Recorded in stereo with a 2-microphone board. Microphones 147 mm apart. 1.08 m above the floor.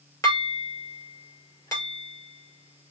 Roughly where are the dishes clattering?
Left.